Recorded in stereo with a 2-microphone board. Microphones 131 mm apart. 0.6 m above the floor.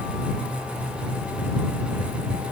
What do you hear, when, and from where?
Only background noise.